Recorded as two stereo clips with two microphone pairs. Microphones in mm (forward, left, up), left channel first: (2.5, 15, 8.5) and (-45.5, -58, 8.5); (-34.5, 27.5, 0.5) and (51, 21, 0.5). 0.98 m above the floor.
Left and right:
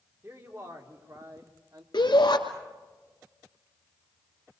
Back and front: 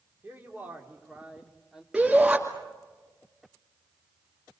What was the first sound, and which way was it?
A man speaking, 70° right.